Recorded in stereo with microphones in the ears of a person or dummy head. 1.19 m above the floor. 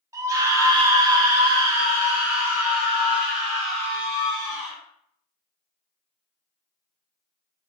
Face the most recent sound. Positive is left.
turn(degrees=0)  # may be behind; listen again after turning